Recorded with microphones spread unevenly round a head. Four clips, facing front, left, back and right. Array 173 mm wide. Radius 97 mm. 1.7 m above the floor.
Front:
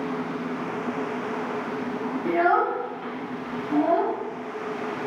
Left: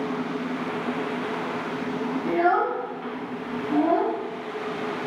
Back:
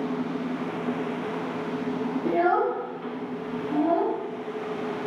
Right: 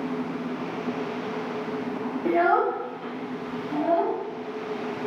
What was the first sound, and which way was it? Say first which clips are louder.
A child speaking: right 1 dB, front 2 dB; 105° right.